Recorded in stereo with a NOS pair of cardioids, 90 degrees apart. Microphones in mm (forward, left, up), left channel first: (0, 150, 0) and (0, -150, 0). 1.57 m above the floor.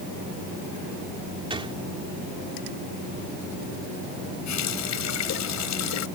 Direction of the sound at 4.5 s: 65° left.